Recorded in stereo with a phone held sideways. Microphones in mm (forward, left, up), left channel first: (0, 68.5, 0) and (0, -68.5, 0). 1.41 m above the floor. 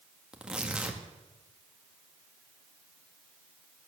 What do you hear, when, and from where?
0.3 s tearing paper: 10° right (ahead or behind), 1.8 m